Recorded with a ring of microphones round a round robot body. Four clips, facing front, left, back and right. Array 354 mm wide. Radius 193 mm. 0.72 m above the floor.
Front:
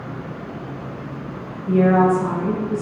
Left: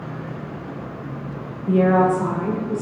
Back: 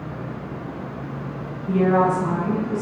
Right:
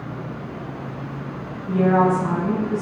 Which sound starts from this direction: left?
A woman speaking, at 1.7 s.